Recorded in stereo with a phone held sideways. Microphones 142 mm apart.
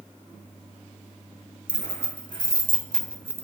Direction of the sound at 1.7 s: 55° left (ahead or behind).